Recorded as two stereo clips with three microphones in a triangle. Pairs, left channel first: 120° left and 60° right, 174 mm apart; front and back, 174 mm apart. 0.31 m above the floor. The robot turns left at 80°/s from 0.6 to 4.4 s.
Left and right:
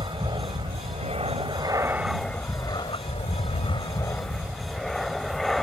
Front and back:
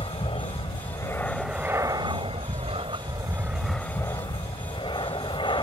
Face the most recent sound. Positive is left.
turn(degrees=35)